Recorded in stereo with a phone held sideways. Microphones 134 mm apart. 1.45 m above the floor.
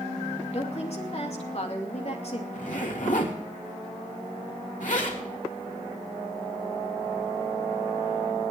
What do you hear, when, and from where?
0.5 s a woman speaking: 50° left (ahead or behind), 2.5 m
2.5 s a zipper: 65° left (ahead or behind), 3 m